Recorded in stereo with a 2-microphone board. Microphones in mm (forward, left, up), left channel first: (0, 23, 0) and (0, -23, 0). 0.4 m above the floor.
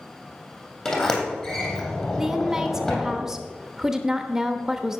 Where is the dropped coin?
I don't hear a dropped coin.